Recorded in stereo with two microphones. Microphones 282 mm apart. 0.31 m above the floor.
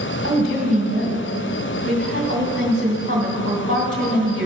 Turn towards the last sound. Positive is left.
turn(degrees=-50)  # may be behind; listen again after turning